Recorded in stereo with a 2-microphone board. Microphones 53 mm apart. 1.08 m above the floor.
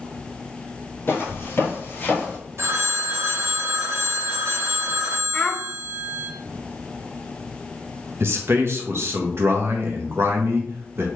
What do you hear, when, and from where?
1.1 s footsteps: 45° left (ahead or behind), 1.6 m; by 2.4 s 25° left (ahead or behind), 1.1 m
2.6 s a phone ringing: 50° right (ahead or behind), 0.8 m
5.3 s a child speaking: 15° left (ahead or behind), 0.5 m
8.2 s a man speaking: 50° right (ahead or behind), 0.8 m